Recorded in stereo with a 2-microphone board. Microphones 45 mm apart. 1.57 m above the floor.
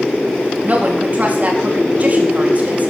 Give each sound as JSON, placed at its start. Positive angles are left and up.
{"t": 0.6, "sound": "a woman speaking", "side_deg": -40, "distance_m": 3.5}